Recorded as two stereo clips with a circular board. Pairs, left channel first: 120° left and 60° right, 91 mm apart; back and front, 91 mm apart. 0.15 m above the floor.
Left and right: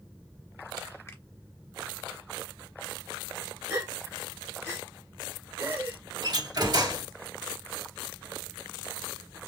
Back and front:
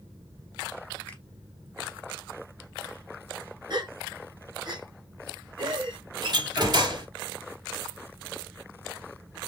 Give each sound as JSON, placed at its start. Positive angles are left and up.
{"t": 1.1, "sound": "a finger snap", "azimuth_deg": 125, "distance_m": 1.3}
{"t": 3.7, "sound": "a gasp", "azimuth_deg": 5, "distance_m": 2.5}
{"t": 6.2, "sound": "a door slam", "azimuth_deg": -25, "distance_m": 2.0}